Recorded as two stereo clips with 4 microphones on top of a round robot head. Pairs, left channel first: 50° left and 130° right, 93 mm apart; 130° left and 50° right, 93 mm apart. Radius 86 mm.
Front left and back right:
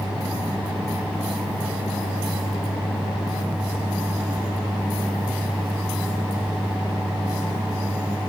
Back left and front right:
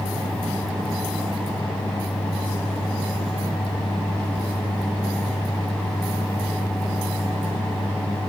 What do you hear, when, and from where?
Only background noise.